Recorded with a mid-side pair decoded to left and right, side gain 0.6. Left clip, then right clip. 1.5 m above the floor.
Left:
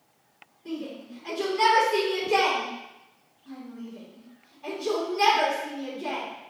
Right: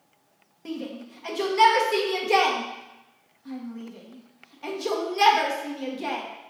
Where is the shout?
60° right, 1.3 m.